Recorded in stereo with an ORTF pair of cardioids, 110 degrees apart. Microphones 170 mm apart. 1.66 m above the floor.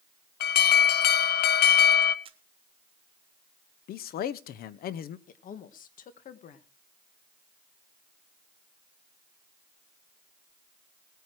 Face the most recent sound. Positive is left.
turn(degrees=55)